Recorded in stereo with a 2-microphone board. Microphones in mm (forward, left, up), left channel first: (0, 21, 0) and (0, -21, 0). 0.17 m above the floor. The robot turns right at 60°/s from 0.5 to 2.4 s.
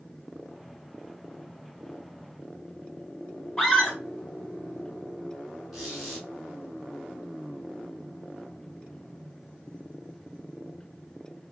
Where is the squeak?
10° right (ahead or behind), 3 m.